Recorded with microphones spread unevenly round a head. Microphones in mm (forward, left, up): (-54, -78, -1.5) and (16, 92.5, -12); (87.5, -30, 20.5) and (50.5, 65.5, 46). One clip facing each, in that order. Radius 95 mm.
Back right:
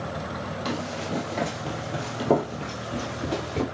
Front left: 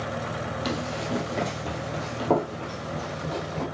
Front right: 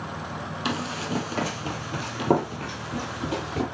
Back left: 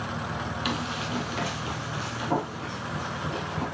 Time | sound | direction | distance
0.7 | running footsteps | 5° right | 2.0 m